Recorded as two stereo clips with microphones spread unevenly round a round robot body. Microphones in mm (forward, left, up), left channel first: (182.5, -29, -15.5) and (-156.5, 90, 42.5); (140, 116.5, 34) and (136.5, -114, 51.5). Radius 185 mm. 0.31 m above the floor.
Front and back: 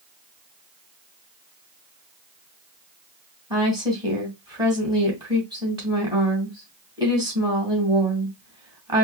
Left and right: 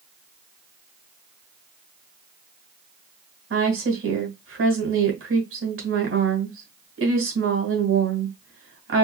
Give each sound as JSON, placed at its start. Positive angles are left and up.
{"t": 3.5, "sound": "a woman speaking", "azimuth_deg": -115, "distance_m": 2.5}